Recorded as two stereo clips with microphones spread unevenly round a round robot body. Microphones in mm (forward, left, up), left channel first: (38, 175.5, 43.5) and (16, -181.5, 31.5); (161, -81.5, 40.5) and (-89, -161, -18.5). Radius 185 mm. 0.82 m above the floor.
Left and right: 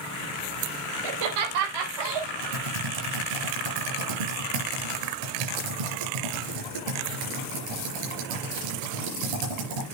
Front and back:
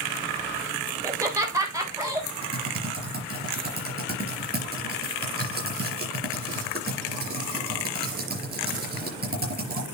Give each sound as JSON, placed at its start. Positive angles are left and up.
{"t": 1.0, "sound": "laughter", "azimuth_deg": -85, "distance_m": 4.0}
{"t": 2.4, "sound": "typing on a keyboard", "azimuth_deg": -110, "distance_m": 5.0}